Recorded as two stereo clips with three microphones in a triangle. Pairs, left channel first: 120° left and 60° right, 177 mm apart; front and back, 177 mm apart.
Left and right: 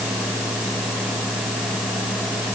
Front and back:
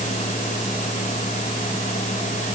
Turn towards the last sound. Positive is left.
No sound to turn to.